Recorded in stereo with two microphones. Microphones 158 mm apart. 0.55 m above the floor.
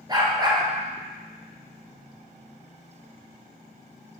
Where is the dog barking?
25° right (ahead or behind), 2.5 m.